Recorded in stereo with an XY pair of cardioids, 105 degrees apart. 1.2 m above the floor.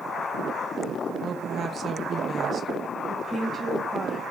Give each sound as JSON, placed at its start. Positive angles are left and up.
{"t": 1.2, "sound": "a woman speaking", "azimuth_deg": -40, "distance_m": 0.8}
{"t": 3.1, "sound": "a woman speaking", "azimuth_deg": -15, "distance_m": 1.7}